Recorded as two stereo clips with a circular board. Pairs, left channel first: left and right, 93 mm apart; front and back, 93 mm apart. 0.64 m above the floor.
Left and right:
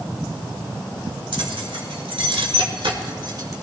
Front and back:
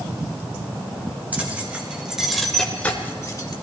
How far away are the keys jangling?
About 2.5 m.